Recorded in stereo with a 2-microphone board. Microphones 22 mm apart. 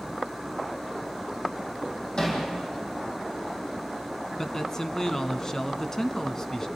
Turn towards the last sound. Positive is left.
turn(degrees=25)  # may be behind; listen again after turning